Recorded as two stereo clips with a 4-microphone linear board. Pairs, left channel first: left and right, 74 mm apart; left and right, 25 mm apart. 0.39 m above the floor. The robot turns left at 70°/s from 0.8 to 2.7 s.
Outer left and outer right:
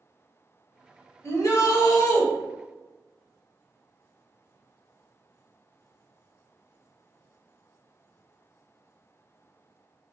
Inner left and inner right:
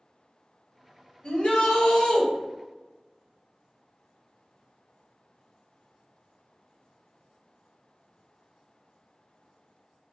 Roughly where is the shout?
Behind left.